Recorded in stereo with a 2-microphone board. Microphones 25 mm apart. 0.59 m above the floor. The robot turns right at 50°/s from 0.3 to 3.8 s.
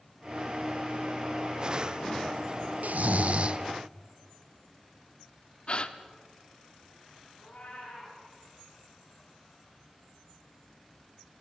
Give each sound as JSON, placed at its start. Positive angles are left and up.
{"t": 2.8, "sound": "snoring", "azimuth_deg": -75, "distance_m": 0.6}
{"t": 5.7, "sound": "a gasp", "side_deg": 45, "distance_m": 1.1}
{"t": 7.4, "sound": "a cat meowing", "side_deg": 70, "distance_m": 8.5}